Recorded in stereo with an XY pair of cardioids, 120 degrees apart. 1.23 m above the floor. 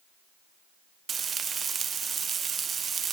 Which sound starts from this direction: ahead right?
Frying, at 1.1 s.